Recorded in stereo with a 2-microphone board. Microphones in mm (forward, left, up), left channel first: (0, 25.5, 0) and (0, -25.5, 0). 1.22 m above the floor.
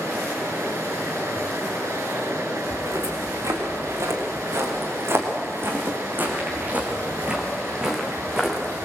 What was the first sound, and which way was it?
Running water, 85° right.